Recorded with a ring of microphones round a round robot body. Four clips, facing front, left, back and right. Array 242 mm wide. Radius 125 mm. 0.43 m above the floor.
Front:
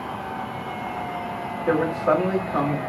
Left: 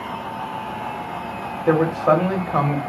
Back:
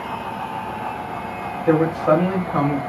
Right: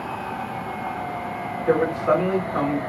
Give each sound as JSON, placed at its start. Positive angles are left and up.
{"t": 1.7, "sound": "a man speaking", "azimuth_deg": 85, "distance_m": 2.0}